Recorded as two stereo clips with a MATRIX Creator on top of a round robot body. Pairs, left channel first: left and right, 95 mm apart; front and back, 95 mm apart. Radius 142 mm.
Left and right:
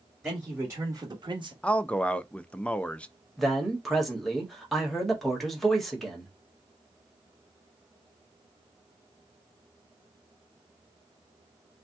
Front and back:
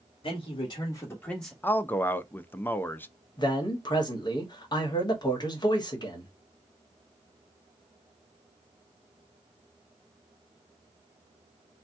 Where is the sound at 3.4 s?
Straight ahead, 1.5 m.